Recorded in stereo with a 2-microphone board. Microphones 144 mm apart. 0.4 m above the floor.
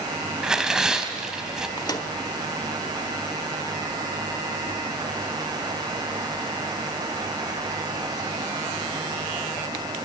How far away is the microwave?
About 1.2 m.